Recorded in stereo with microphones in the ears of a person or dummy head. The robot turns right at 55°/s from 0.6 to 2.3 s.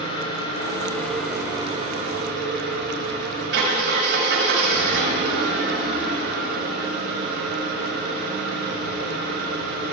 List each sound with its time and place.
0.0 s an engine running: 145° left, 7 m; by 9.9 s 120° right, 7 m